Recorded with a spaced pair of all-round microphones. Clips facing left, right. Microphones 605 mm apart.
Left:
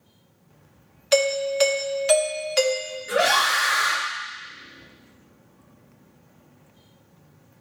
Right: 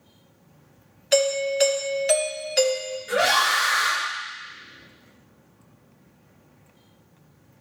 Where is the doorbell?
35° left (ahead or behind), 0.6 m.